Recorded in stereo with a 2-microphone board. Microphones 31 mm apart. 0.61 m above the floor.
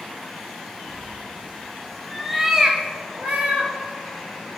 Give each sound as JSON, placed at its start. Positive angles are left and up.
{"t": 0.9, "sound": "a cat meowing", "side_deg": 60, "distance_m": 1.0}